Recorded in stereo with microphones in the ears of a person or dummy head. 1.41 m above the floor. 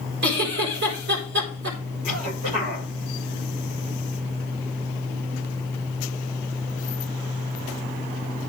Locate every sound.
0.2 s a giggle: 60° right (ahead or behind), 4 m
2.0 s a cough: 40° right (ahead or behind), 5.5 m